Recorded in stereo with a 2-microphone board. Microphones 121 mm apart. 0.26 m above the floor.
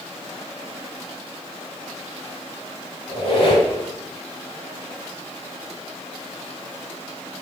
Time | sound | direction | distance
3.1 | a squeak | 45° left (ahead or behind) | 1.4 m